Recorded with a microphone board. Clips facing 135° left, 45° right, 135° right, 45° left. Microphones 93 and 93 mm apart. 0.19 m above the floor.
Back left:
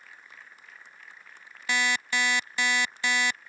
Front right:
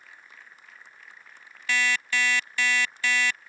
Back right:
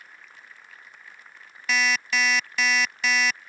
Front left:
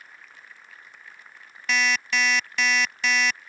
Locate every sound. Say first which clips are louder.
1.7 s an alarm clock: front right 1 dB, even; 140° left